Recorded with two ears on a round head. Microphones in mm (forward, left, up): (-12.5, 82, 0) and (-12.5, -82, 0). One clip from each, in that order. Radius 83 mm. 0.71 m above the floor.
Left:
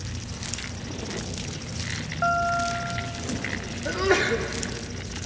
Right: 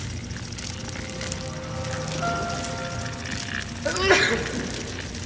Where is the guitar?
60° left (ahead or behind), 2 m.